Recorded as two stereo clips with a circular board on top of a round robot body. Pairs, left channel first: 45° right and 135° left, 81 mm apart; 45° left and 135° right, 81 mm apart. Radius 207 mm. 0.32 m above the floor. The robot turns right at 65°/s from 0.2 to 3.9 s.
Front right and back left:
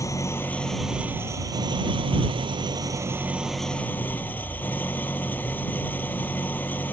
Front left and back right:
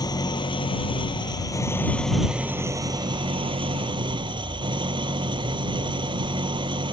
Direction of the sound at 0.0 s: 5° left.